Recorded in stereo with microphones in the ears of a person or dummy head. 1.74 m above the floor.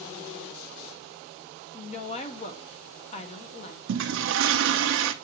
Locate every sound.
1.7 s a woman speaking: 35° left (ahead or behind), 1.1 m
3.9 s a toilet flushing: 70° right (ahead or behind), 0.6 m